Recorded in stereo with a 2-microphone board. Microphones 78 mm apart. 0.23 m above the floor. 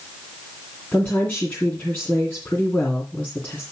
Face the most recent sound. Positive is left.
turn(degrees=20)  # may be behind; listen again after turning